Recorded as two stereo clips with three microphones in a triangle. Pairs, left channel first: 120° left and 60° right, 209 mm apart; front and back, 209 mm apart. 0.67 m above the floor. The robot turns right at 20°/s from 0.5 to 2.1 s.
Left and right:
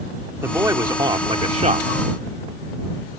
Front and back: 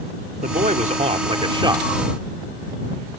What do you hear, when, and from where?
0.4 s a man speaking: 140° right; by 1.9 s 110° right